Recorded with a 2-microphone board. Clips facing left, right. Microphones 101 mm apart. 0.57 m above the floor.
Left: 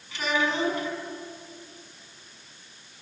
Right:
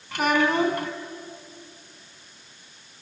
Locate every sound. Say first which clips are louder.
0.1 s a child speaking: right 5 dB; 55° right (ahead or behind), 3 m